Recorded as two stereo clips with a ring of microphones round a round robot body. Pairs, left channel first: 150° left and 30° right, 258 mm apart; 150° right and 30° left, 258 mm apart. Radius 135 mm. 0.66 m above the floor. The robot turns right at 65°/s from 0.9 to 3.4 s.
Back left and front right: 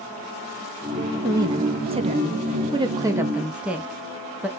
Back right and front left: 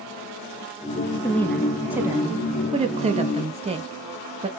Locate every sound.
1.2 s a woman speaking: 90° right, 0.5 m; by 4.5 s 50° left, 0.5 m